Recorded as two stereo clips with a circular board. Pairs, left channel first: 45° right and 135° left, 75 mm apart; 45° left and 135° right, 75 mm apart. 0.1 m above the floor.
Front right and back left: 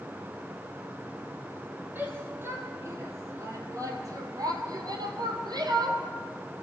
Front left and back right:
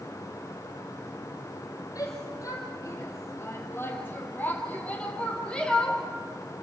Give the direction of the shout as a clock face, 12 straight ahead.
10 o'clock.